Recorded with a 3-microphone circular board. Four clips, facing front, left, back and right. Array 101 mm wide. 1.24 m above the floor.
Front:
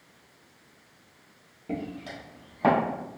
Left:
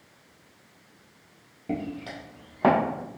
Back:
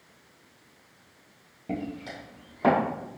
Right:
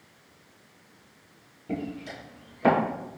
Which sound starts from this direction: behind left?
Footsteps, at 1.7 s.